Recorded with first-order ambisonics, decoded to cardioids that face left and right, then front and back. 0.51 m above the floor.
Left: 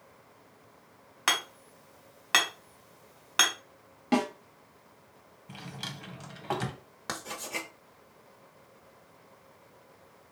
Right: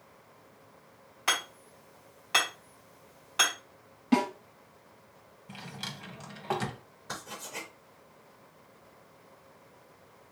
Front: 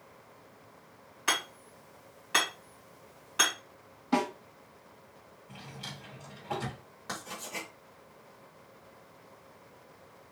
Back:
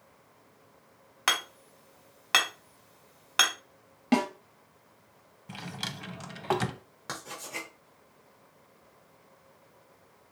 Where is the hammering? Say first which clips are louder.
Left 1 dB, back 3 dB; 145° left, 1.8 m.